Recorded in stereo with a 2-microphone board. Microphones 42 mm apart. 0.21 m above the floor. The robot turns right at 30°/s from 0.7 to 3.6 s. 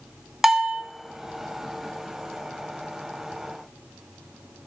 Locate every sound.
0.4 s a bell: 5° right (ahead or behind), 0.6 m